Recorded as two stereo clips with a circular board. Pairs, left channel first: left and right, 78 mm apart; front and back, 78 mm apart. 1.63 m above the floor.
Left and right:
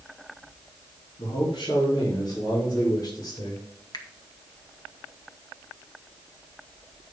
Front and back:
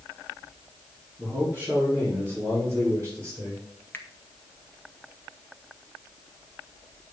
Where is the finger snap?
65° left, 1.3 m.